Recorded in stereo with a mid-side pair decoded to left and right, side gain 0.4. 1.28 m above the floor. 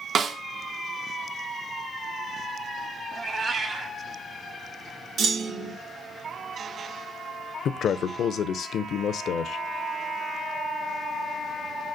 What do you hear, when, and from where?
0.1 s a snare drum: 60° right, 0.8 m
3.1 s a cat meowing: 45° right, 1.4 m
5.2 s a clunk: 70° right, 1.6 m
7.7 s a man speaking: 70° left, 0.6 m